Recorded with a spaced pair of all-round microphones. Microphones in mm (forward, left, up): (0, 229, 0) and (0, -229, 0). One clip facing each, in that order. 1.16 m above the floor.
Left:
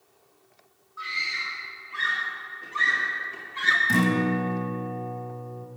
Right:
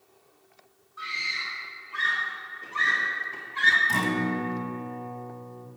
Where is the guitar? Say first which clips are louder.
Left 5 dB; 40° left (ahead or behind), 1.5 m.